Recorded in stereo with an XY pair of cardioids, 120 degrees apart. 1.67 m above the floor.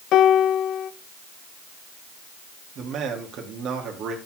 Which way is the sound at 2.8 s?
65° right.